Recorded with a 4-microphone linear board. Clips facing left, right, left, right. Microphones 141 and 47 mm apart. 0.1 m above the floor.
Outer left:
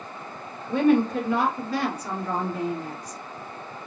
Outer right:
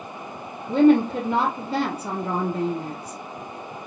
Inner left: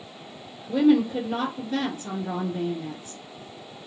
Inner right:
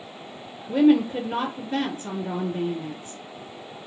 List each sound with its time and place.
0.7 s a woman speaking: 30° right (ahead or behind), 1.2 m